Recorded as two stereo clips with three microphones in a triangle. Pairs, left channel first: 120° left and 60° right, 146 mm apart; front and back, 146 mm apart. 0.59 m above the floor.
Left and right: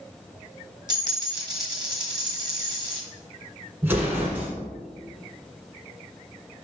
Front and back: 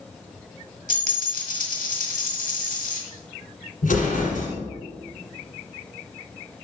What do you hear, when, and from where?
0.9 s a dropped coin: straight ahead, 1.5 m
3.8 s an explosion: 15° left, 1.7 m